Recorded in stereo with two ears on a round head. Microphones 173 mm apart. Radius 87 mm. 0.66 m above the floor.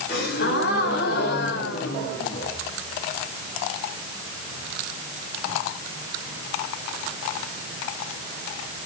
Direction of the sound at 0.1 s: 55° left (ahead or behind).